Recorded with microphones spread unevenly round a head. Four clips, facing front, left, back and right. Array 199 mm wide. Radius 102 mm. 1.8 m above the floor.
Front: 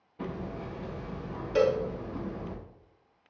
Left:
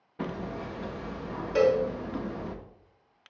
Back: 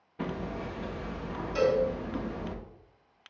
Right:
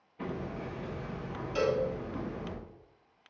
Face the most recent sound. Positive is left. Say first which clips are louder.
# left 6 dB, front 1 dB
turn(degrees=40)